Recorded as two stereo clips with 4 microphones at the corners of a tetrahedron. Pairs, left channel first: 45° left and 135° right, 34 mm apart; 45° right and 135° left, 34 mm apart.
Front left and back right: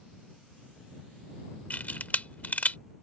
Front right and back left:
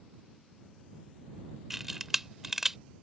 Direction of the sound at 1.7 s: 50° left.